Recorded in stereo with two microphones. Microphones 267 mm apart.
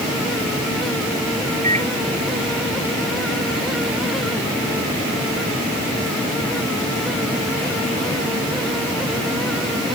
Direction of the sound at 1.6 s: 25° right (ahead or behind).